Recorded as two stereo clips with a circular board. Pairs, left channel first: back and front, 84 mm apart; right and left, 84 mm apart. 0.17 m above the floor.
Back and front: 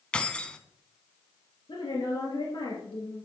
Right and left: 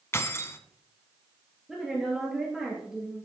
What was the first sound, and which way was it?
Keys jangling, 110° right.